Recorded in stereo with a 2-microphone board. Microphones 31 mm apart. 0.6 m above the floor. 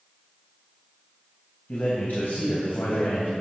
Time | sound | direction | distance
1.7 | a man speaking | 70° left (ahead or behind) | 3 m